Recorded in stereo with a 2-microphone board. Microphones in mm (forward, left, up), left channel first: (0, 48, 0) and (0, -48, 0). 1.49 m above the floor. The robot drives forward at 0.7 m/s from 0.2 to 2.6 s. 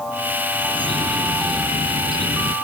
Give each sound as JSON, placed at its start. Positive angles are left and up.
{"t": 0.5, "sound": "a bird", "side_deg": -70}